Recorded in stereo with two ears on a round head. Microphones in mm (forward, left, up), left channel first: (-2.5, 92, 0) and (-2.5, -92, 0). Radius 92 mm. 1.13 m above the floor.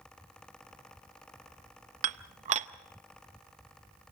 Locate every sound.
2.0 s dishes clattering: 35° right (ahead or behind), 0.7 m